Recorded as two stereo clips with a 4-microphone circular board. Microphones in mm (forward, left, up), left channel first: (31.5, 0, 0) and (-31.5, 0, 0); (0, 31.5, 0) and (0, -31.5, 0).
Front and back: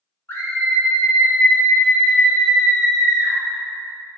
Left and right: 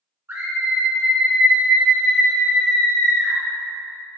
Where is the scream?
45° right, 1.6 m; by 3.4 s 100° left, 1.4 m.